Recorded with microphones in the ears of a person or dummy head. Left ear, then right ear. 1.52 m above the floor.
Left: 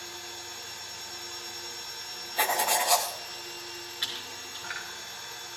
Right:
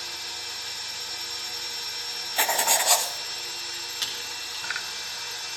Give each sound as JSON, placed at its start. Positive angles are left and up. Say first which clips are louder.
{"t": 0.0, "sound": "a machine running", "louder": "right 7 dB", "side_deg": -30, "distance_m": 1.2}
{"t": 2.4, "sound": "writing", "louder": "right 2 dB", "side_deg": -25, "distance_m": 1.1}
{"t": 4.0, "sound": "typing on a keyboard", "louder": "right 1 dB", "side_deg": -85, "distance_m": 4.5}